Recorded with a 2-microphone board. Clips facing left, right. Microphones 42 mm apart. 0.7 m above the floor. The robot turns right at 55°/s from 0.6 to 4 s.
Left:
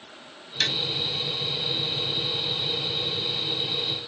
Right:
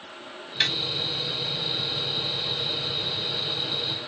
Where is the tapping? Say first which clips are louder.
Right 1 dB; 25° right (ahead or behind), 1.3 m; by 0.8 s 15° right (ahead or behind), 1.3 m.